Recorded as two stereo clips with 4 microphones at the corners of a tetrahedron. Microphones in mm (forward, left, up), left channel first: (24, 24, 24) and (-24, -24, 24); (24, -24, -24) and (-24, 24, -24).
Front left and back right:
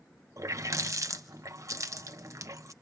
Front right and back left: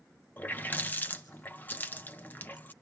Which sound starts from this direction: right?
A running tap, at 0.4 s.